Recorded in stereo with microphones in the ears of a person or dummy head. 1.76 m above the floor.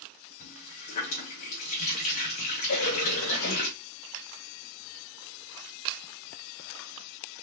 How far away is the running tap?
About 1.1 m.